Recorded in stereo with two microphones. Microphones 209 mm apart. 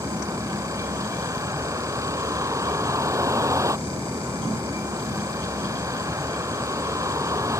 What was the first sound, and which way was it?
A vehicle, 15° right (ahead or behind).